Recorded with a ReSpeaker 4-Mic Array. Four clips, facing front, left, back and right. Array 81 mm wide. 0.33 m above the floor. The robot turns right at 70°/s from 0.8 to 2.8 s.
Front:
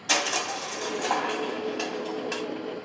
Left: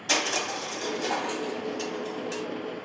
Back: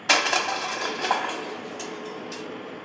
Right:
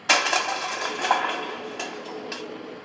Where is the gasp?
No gasp in this recording.